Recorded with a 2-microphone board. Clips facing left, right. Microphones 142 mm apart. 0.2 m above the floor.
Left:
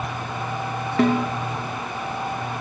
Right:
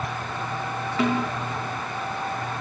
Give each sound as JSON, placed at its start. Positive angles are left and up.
{"t": 1.0, "sound": "a snare drum", "side_deg": 50, "distance_m": 4.0}